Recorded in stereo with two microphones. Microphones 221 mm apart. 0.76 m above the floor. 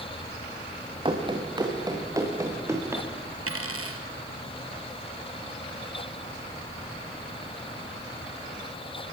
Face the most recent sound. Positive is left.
turn(degrees=-80)